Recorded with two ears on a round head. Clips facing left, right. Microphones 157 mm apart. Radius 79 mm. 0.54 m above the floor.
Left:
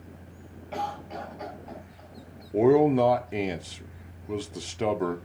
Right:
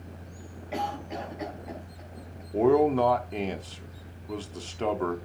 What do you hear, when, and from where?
0.7 s a cough: 25° right (ahead or behind), 3.5 m
2.5 s a man speaking: 15° left (ahead or behind), 0.7 m